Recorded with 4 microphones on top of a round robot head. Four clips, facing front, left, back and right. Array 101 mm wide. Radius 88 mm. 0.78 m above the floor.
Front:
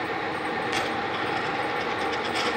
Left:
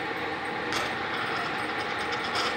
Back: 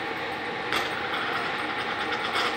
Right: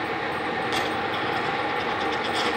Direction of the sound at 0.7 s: 160° left.